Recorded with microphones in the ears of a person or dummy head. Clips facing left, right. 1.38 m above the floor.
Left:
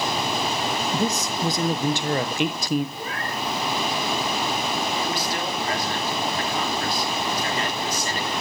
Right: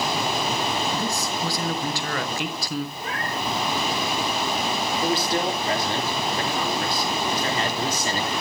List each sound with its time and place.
0.9 s a man speaking: 20° left (ahead or behind), 1.1 m
3.0 s a cat meowing: 80° left, 7.5 m
5.0 s a man speaking: 30° right (ahead or behind), 2.5 m